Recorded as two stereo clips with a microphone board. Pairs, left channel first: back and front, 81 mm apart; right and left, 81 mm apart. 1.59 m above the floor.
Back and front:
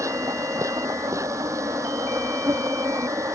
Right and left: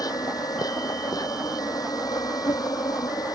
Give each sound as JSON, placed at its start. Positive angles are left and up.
{"t": 0.0, "sound": "an insect", "azimuth_deg": -50}